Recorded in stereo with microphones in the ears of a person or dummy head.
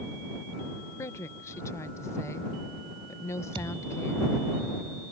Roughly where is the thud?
Right.